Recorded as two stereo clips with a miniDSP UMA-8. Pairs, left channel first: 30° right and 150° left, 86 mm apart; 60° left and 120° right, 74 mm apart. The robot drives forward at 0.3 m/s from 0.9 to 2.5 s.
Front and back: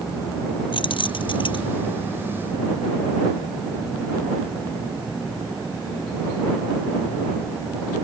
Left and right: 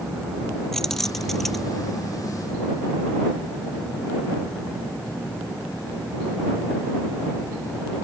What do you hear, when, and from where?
0.7 s keys jangling: 25° right; by 1.7 s 30° right